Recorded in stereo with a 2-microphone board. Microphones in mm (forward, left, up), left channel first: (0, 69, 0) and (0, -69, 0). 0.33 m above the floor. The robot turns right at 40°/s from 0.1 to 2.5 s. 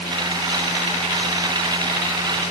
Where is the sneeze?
I don't hear a sneeze.